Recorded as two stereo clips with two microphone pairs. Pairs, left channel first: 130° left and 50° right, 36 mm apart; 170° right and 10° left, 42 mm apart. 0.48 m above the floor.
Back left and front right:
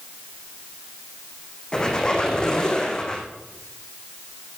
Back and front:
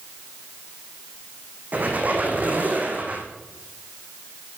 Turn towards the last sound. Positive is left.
turn(degrees=60)